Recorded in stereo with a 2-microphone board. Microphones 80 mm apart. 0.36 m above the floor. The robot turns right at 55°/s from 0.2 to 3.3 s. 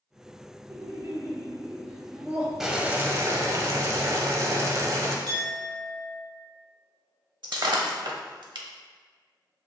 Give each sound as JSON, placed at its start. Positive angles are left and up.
{"t": 0.7, "sound": "laughter", "azimuth_deg": -125, "distance_m": 1.3}
{"t": 2.6, "sound": "boiling", "azimuth_deg": -175, "distance_m": 0.6}
{"t": 5.3, "sound": "a clink", "side_deg": -60, "distance_m": 1.7}
{"t": 7.4, "sound": "breaking glass", "side_deg": -70, "distance_m": 0.6}